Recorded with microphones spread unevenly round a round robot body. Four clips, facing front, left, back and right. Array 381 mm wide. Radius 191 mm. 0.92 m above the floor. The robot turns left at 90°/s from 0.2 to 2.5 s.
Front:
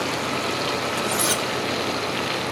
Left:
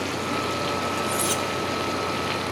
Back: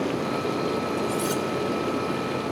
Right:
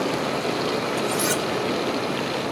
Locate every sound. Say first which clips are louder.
1.0 s cutlery clinking: right 2 dB, front 1 dB; 5° right, 0.7 m; by 1.4 s 50° right, 0.7 m